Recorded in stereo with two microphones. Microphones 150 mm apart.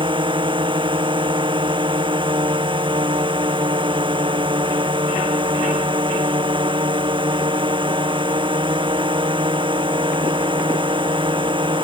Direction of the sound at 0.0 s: 35° right (ahead or behind).